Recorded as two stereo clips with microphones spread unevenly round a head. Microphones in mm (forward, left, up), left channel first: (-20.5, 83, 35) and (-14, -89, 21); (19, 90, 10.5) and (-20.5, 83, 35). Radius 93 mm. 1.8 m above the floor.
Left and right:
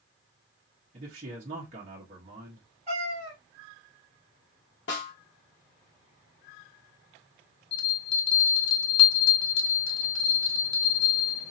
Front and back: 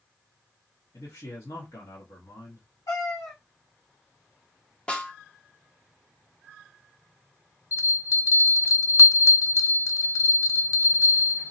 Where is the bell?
30° left, 0.6 m.